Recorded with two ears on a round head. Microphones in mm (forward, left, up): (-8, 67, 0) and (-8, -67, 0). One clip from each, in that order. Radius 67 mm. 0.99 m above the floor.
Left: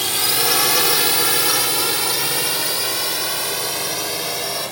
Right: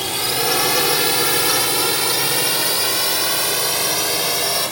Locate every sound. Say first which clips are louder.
0.0 s a drone: left 1 dB; 25° left (ahead or behind); by 4.7 s 10° right (ahead or behind)